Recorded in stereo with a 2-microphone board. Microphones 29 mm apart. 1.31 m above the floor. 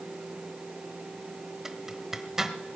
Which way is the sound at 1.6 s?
15° right (ahead or behind).